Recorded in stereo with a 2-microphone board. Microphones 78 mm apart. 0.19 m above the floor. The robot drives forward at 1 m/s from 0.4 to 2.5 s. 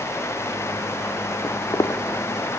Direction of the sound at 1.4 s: 35° left (ahead or behind).